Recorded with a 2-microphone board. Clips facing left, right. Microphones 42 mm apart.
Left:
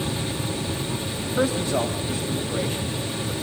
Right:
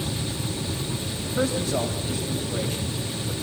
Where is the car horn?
No car horn in this recording.